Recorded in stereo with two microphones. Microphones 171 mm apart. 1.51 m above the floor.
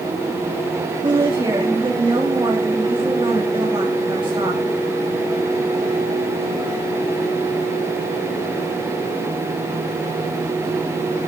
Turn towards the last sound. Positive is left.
turn(degrees=-30)  # may be behind; listen again after turning